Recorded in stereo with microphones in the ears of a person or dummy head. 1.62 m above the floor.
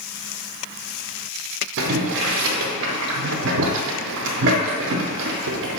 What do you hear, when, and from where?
1.8 s boiling: 65° right (ahead or behind), 0.6 m